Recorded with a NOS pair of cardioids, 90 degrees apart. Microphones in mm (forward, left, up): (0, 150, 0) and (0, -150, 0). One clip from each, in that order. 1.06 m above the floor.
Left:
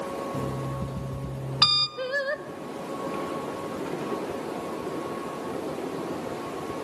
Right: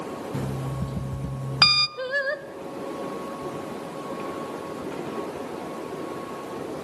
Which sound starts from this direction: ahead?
Singing, at 2.0 s.